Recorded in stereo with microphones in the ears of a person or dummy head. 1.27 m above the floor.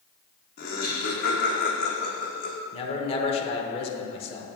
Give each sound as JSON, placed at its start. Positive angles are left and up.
{"t": 0.6, "sound": "laughter", "side_deg": 50, "distance_m": 1.3}
{"t": 2.7, "sound": "a man speaking", "side_deg": 35, "distance_m": 0.8}